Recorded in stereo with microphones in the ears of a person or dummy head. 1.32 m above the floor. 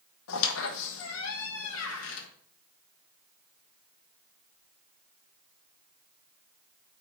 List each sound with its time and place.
0.3 s a squeak: 80° left, 1.0 m